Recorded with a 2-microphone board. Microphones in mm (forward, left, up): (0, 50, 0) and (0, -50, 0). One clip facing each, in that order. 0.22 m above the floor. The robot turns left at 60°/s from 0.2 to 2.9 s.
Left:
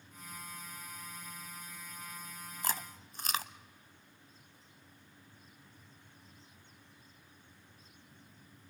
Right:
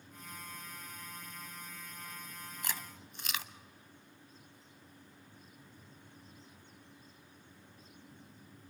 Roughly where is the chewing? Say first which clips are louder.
Left 6 dB; left.